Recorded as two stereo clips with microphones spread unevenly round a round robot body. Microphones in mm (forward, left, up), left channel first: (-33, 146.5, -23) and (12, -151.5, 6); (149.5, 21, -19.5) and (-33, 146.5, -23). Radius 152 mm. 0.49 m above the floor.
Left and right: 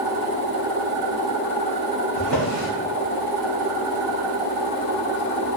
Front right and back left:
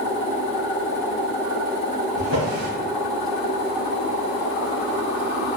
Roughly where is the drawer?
Right.